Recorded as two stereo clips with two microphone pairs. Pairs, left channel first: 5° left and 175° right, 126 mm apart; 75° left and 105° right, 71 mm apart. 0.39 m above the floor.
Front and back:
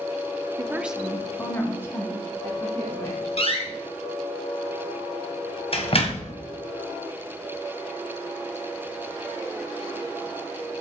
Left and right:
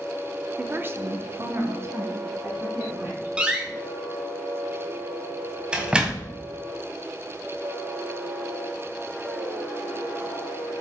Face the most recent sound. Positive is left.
turn(degrees=-30)